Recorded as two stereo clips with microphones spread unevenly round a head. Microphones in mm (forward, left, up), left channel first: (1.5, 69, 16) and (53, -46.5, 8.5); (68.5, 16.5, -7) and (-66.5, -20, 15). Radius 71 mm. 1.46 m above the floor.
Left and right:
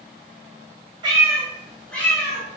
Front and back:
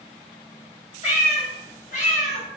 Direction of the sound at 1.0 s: 20° right.